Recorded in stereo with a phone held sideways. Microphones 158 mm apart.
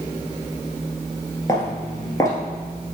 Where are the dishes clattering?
I don't hear dishes clattering.